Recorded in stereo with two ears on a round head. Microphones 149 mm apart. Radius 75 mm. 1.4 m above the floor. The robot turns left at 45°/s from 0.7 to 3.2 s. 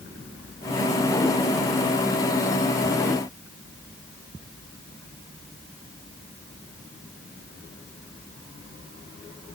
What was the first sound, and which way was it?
Only background noise.